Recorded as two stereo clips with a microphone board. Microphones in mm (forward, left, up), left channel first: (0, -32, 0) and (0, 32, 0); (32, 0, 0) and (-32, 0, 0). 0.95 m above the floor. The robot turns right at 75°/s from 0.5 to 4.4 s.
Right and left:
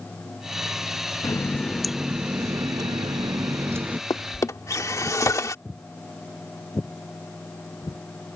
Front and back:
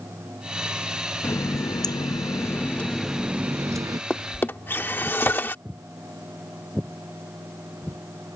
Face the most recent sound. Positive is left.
turn(degrees=-75)